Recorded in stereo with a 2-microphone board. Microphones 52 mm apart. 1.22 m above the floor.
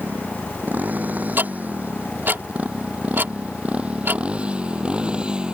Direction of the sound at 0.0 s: 35° right (ahead or behind).